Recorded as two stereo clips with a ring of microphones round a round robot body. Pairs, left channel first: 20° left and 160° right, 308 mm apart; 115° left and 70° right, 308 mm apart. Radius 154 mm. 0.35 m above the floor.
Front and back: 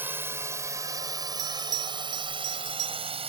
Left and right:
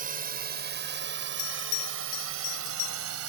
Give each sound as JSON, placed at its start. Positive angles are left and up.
{"t": 0.0, "sound": "a drone", "azimuth_deg": -80}
{"t": 1.4, "sound": "a bell", "azimuth_deg": 150}